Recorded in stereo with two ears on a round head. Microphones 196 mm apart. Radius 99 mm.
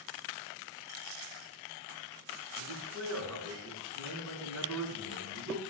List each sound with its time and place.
2.6 s a man speaking: 75° right (ahead or behind), 5 m